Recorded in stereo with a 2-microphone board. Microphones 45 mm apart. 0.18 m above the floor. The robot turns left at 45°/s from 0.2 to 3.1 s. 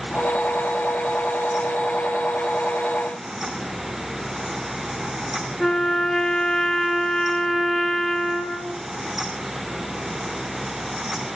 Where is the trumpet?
10° left (ahead or behind), 1.4 m.